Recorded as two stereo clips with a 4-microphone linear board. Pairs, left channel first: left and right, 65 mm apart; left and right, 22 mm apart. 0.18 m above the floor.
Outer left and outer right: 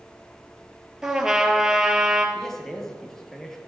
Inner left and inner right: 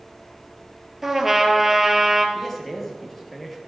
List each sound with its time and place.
1.0 s a trumpet: 10° right (ahead or behind), 2.5 m
2.4 s a man speaking: 10° left (ahead or behind), 4 m